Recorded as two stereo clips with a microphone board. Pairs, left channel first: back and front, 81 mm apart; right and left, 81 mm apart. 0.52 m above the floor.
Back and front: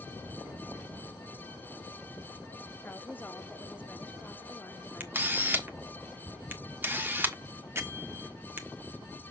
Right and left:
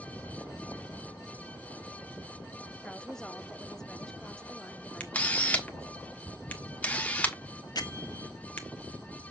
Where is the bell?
60° right, 1.4 m.